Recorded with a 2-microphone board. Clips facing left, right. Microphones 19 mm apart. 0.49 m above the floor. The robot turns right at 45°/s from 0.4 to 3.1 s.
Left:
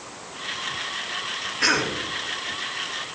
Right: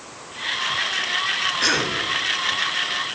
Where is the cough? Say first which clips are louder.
Left 2 dB; 5° right (ahead or behind), 4 m; by 2.0 s 20° right (ahead or behind), 4 m.